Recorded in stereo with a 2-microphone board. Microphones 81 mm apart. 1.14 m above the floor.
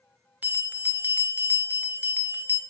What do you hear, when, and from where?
0.4 s a bell: 20° right (ahead or behind), 0.7 m